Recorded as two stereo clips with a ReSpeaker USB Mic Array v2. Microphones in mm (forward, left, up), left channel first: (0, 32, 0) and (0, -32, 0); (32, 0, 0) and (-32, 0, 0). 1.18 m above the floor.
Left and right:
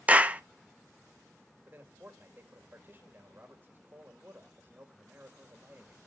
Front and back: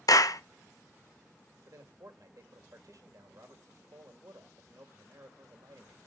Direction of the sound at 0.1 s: 25° right.